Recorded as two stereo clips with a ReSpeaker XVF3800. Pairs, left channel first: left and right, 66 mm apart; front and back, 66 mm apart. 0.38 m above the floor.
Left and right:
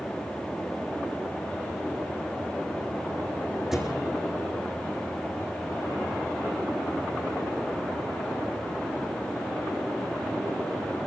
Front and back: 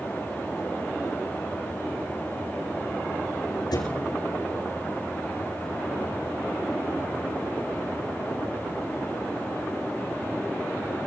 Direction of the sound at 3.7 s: 5° right.